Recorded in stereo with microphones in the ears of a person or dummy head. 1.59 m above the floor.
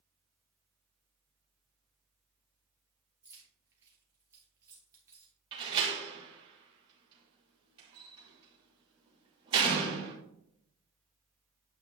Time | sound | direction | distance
3.2 | keys jangling | 15° right (ahead or behind) | 3 m
5.5 | a door slam | 25° right (ahead or behind) | 2.5 m